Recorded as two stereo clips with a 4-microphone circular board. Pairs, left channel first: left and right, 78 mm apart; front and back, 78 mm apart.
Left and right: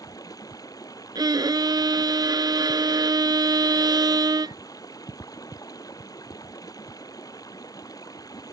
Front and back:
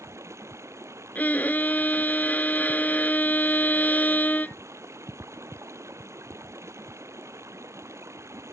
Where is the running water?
130° left.